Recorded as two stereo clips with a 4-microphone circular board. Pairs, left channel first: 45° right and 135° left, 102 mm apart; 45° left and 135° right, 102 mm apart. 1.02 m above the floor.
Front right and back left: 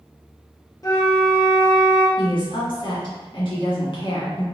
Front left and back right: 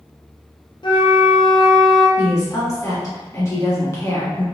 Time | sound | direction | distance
0.8 | a flute | 10° left | 0.6 m
2.2 | a woman speaking | 10° right | 1.5 m